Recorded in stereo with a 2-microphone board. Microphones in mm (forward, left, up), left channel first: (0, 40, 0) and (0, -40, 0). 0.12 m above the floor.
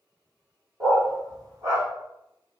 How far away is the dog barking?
About 1.8 m.